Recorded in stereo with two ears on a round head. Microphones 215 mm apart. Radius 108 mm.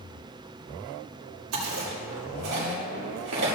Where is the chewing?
70° right (ahead or behind), 3 m.